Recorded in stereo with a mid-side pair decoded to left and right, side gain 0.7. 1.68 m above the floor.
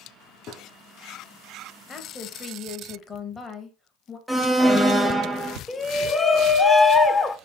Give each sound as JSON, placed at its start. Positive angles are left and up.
{"t": 0.5, "sound": "a gunshot", "azimuth_deg": 55, "distance_m": 0.7}
{"t": 1.9, "sound": "a woman speaking", "azimuth_deg": 30, "distance_m": 1.2}
{"t": 4.3, "sound": "an alarm", "azimuth_deg": 0, "distance_m": 0.7}
{"t": 5.7, "sound": "a shout", "azimuth_deg": 20, "distance_m": 0.6}